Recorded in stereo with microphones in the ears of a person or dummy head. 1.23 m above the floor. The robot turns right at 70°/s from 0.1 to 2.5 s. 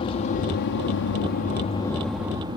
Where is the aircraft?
40° left; by 2.6 s 150° right.